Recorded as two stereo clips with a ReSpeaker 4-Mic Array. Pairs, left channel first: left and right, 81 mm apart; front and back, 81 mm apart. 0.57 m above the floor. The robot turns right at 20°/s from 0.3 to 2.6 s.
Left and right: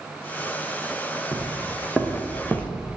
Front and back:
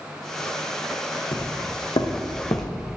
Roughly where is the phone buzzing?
I don't hear a phone buzzing.